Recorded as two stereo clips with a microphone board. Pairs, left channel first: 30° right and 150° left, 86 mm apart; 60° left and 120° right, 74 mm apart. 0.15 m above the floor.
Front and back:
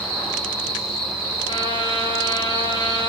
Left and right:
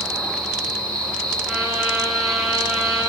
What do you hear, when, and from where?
0.0 s an insect: 10° right, 5 m
1.5 s a trumpet: 30° right, 8 m